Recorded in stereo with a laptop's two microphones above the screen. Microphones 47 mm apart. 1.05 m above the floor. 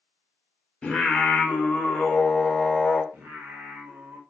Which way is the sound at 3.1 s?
50° right (ahead or behind).